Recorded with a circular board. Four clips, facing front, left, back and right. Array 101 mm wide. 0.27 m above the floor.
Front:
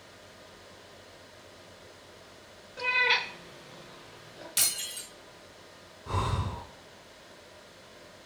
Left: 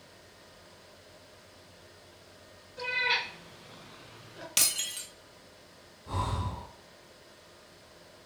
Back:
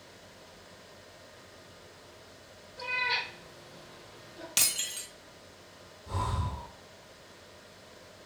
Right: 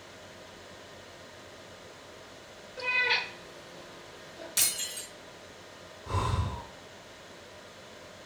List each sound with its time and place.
2.8 s a cat meowing: 10° right, 1.2 m; by 4.5 s 80° left, 1.4 m
4.6 s breaking glass: 120° left, 1.5 m
6.1 s breathing: 30° right, 1.3 m